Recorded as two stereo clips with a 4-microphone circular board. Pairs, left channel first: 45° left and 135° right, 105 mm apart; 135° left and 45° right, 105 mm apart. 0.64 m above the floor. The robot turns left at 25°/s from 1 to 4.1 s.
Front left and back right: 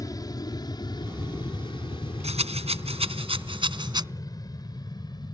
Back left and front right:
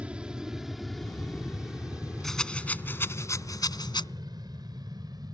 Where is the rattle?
135° right; by 4.0 s 175° left.